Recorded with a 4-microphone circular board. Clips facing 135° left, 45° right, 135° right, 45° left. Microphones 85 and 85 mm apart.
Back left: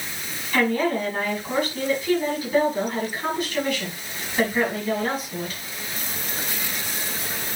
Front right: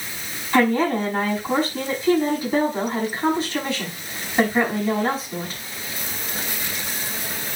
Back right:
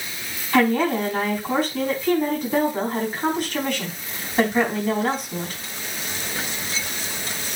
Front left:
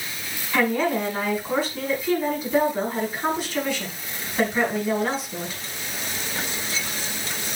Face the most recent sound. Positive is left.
turn(degrees=-100)